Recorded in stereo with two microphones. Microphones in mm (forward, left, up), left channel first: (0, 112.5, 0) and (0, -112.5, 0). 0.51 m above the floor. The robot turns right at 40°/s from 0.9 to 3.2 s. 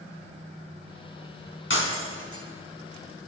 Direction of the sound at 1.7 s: 60° left (ahead or behind).